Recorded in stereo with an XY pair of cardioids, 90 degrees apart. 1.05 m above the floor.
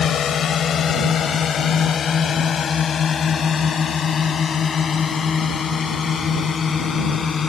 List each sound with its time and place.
0.0 s a drone: 60° left; by 7.5 s 45° left